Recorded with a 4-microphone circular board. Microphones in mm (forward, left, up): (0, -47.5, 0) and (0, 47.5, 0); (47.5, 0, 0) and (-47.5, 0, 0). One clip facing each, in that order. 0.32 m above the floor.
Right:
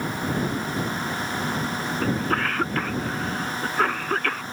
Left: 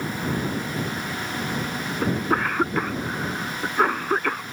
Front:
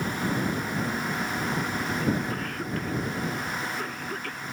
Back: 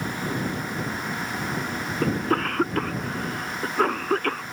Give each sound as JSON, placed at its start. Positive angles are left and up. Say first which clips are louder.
{"t": 2.0, "sound": "a cough", "louder": "left 2 dB, back 9 dB", "azimuth_deg": 165}